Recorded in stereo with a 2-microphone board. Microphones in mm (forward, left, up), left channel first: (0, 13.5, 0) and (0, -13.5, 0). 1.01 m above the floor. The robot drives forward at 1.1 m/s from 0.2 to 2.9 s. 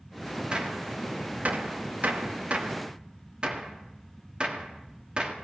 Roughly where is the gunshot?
Right.